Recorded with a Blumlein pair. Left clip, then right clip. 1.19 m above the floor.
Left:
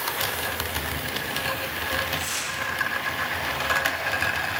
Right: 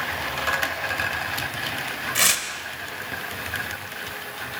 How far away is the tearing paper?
About 2.5 m.